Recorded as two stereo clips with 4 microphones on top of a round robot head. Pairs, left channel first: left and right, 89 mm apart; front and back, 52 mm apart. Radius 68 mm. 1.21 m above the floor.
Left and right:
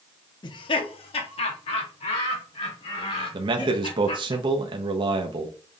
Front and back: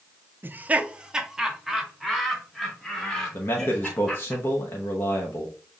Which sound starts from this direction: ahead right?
A man speaking, at 3.3 s.